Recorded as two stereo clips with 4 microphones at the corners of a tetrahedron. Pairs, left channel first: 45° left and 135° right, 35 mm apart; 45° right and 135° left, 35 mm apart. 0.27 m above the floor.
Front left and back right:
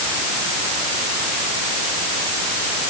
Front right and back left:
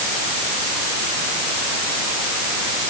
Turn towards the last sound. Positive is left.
No sound to turn to.